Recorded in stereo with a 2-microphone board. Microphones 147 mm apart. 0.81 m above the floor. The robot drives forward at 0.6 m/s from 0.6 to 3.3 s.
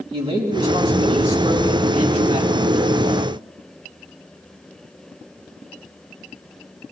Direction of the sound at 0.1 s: 35° right (ahead or behind).